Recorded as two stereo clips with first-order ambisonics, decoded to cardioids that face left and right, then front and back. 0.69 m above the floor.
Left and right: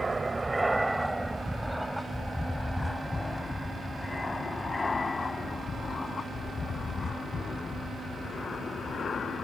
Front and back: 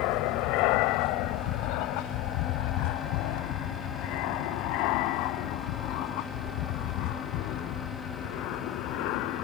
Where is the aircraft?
10° right; by 9.4 s 25° left.